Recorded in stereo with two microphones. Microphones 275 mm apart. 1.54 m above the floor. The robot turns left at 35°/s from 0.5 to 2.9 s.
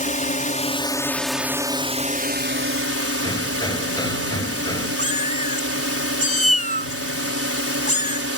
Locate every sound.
0.0 s a drone: 30° left; by 8.4 s 55° right
3.2 s hammering: 15° left (ahead or behind)
5.0 s a cat meowing: 25° left (ahead or behind)